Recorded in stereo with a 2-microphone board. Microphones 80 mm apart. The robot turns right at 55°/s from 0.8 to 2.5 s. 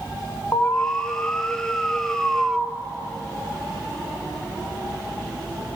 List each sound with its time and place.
0.5 s an alarm: 30° left (ahead or behind), 1.3 m; by 2.7 s 10° right (ahead or behind), 1.3 m